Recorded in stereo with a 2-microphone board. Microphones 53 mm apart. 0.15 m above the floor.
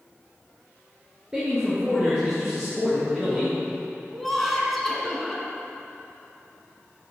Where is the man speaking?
10° right (ahead or behind), 2 m; by 3.5 s centre (ahead or behind), 4 m.